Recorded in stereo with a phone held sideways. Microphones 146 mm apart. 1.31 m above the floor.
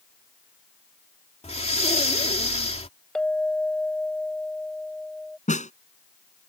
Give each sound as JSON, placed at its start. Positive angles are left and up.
{"t": 1.4, "sound": "breathing", "side_deg": 45}
{"t": 3.1, "sound": "a clink", "side_deg": 5}
{"t": 5.5, "sound": "a snare drum", "side_deg": 55}